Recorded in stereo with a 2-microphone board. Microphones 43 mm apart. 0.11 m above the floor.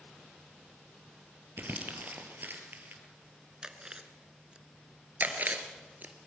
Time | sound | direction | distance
1.6 | crumpling | 50° right (ahead or behind) | 2.5 m
3.6 | chewing | 20° right (ahead or behind) | 1.2 m
5.2 | chewing | 45° right (ahead or behind) | 1.8 m